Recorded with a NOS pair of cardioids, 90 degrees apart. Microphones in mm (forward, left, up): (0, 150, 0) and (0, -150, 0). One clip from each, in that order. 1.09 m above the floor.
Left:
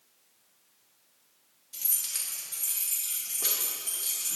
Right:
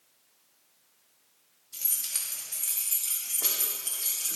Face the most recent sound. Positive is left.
turn(degrees=-35)